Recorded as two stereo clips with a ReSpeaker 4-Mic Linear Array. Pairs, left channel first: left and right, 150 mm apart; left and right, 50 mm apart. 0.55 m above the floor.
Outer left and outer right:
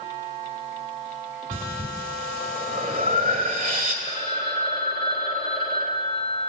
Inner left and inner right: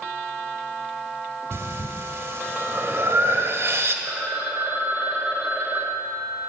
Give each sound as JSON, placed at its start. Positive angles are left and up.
{"t": 1.5, "sound": "breathing", "side_deg": -65, "distance_m": 1.4}
{"t": 4.0, "sound": "a phone ringing", "side_deg": -65, "distance_m": 1.3}